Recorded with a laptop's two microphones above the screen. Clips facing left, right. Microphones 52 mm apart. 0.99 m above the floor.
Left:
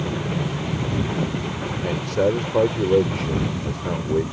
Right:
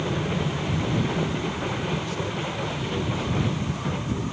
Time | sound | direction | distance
1.8 | a man speaking | 75° left (ahead or behind) | ?